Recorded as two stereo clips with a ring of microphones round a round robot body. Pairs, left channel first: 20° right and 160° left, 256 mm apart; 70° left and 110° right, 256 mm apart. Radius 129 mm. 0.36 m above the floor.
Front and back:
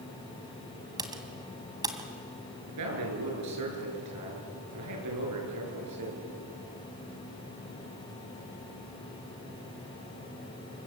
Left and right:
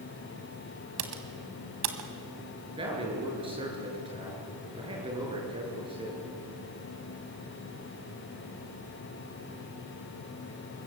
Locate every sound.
1.0 s typing on a keyboard: 130° right, 2.5 m
2.7 s a man speaking: 175° left, 7.5 m